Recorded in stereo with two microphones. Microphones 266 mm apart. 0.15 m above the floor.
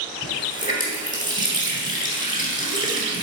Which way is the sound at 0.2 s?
30° left (ahead or behind).